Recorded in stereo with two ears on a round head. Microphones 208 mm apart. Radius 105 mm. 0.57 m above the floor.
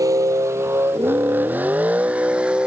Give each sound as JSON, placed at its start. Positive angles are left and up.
{"t": 0.0, "sound": "a vehicle", "side_deg": -15}